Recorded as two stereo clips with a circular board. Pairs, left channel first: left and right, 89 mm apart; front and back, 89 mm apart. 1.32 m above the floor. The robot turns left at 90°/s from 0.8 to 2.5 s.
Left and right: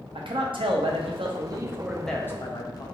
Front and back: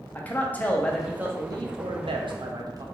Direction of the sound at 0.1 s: 70° right.